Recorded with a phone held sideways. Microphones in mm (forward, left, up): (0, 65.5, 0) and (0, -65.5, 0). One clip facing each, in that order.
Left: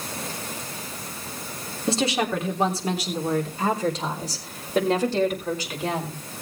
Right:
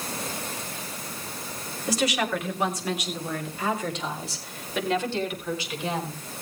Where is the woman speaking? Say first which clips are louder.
Left 2 dB; 25° left (ahead or behind), 3 m; by 6.2 s 45° left (ahead or behind), 5 m.